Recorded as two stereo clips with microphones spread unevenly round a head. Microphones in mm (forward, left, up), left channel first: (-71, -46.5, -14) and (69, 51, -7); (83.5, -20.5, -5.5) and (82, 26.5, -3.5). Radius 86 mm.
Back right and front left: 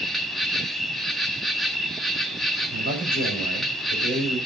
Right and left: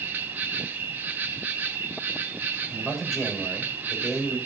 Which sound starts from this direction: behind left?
An insect, at 0.0 s.